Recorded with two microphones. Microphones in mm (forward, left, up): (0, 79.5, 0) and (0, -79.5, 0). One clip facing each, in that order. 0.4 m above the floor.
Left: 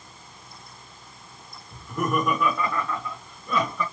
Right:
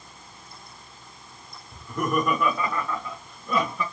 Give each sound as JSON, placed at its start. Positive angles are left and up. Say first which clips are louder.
{"t": 1.7, "sound": "laughter", "louder": "even", "side_deg": 5, "distance_m": 1.1}